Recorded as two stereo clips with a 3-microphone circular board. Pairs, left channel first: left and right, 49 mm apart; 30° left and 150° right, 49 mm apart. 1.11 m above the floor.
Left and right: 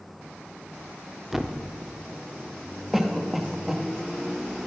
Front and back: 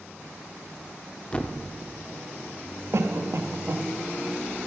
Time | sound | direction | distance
1.3 | a thud | 15° right | 0.7 m
2.9 | a cough | 175° right | 1.3 m